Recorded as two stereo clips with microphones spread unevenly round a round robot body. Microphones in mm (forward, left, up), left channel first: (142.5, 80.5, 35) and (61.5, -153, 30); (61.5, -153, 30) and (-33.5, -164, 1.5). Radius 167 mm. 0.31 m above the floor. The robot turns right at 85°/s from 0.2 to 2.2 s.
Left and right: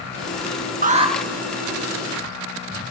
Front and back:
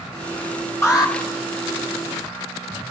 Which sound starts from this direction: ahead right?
An alarm, at 0.8 s.